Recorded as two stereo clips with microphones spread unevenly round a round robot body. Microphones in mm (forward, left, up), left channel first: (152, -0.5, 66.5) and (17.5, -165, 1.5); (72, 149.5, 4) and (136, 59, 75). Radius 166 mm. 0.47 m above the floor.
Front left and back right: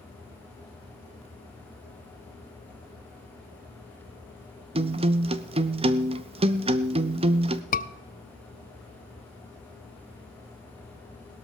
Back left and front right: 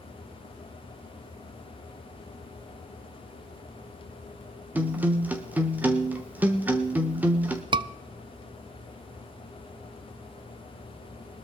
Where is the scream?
25° left, 0.7 m.